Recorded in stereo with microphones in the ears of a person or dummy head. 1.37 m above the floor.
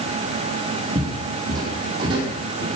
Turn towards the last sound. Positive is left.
turn(degrees=-30)  # may be behind; listen again after turning